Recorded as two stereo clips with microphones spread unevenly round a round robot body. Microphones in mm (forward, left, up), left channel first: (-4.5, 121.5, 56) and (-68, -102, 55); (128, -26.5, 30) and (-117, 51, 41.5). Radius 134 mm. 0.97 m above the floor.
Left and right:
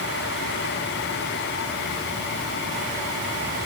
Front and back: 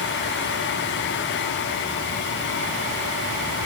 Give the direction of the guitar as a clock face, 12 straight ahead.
No guitar in this recording.